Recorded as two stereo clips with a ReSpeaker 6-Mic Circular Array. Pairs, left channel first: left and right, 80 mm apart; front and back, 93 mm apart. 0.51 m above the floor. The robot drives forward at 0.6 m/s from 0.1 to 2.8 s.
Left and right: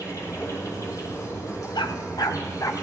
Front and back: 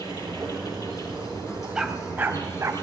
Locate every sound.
0.0 s an insect: 45° left, 7 m; by 2.8 s 55° left, 6 m
1.8 s a dog barking: 100° left, 1.0 m; by 2.7 s 125° left, 1.2 m